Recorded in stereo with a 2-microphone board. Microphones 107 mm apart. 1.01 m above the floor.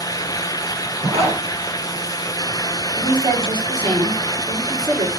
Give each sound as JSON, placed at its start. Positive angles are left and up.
{"t": 1.0, "sound": "a zipper", "side_deg": -70, "distance_m": 5.5}
{"t": 3.0, "sound": "a woman speaking", "side_deg": -45, "distance_m": 4.0}